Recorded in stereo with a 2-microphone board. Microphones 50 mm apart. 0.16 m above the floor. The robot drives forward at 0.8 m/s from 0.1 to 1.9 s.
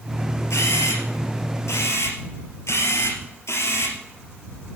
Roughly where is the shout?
I don't hear a shout.